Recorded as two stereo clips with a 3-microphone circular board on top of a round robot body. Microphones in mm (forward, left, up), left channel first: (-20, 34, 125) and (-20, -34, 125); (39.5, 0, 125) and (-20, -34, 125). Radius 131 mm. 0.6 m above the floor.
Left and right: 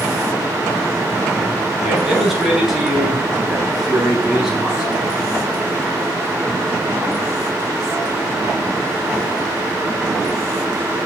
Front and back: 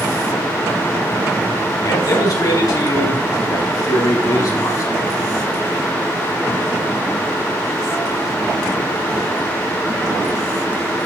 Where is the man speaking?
Straight ahead, 6 m; by 5.2 s 5° right, 7.5 m.